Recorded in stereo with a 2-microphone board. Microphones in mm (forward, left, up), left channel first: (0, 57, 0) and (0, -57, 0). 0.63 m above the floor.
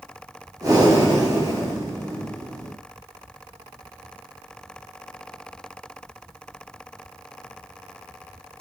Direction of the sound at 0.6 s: 35° right (ahead or behind).